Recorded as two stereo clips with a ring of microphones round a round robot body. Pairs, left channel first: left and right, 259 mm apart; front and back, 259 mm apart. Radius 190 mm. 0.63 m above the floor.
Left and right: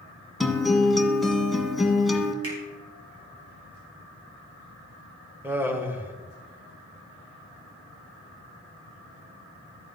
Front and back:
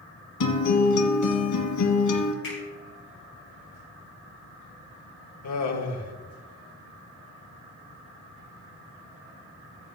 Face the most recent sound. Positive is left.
turn(degrees=-10)